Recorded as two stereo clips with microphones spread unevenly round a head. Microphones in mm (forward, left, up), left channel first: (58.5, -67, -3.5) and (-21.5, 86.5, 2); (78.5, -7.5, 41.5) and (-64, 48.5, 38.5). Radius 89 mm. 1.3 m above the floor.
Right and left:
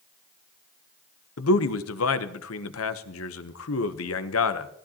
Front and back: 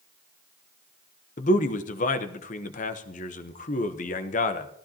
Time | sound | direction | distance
1.4 | a man speaking | 65° right | 0.9 m